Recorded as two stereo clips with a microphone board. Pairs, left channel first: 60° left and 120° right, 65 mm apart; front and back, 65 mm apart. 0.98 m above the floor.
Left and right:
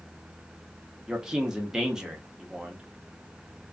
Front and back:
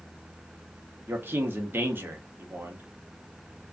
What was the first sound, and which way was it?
A man speaking, 165° left.